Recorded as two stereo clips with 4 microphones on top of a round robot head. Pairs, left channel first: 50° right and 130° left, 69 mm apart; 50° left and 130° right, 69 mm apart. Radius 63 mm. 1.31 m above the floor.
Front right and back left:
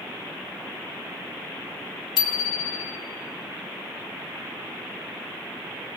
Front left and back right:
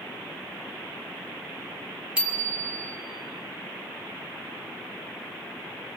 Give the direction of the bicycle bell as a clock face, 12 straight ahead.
2 o'clock.